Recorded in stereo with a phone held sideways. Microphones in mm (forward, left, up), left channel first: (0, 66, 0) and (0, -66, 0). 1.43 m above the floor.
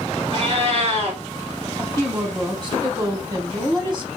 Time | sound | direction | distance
0.3 | a cat meowing | 55° right (ahead or behind) | 2.5 m
1.8 | a woman speaking | 35° right (ahead or behind) | 1.1 m